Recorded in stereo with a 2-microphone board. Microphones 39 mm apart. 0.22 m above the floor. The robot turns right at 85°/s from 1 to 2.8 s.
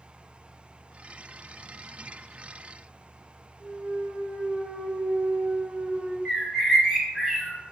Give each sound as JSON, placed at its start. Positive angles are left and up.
{"t": 3.6, "sound": "a clunk", "side_deg": -35, "distance_m": 0.7}
{"t": 6.2, "sound": "a bird", "side_deg": -10, "distance_m": 0.7}